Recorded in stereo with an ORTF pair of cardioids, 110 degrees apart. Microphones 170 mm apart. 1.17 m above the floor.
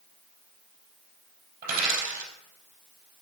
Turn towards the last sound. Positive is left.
turn(degrees=-70)